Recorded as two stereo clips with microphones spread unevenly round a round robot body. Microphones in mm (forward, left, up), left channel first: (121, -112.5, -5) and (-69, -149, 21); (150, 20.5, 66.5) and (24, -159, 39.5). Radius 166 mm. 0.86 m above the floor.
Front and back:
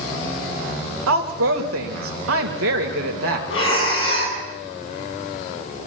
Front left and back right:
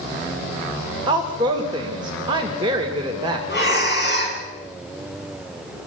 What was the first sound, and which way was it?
A woman speaking, 160° left.